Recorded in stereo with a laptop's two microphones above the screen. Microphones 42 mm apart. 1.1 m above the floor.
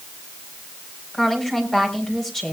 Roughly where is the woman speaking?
Centre.